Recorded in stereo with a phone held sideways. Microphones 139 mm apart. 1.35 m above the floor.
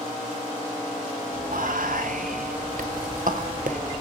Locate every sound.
1.5 s whispering: 75° right (ahead or behind), 0.8 m